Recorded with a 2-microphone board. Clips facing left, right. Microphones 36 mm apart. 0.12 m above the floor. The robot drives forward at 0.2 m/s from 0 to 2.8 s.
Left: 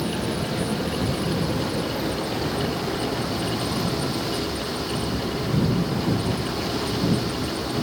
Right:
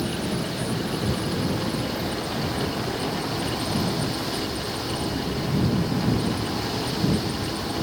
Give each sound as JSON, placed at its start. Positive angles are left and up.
{"t": 0.0, "sound": "running water", "side_deg": 10, "distance_m": 1.3}